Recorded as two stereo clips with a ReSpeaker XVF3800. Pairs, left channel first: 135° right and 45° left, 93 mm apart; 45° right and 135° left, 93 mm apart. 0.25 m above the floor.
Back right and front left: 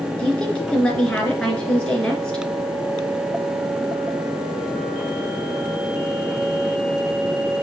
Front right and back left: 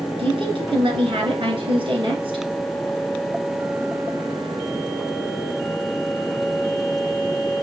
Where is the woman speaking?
145° left, 3 m.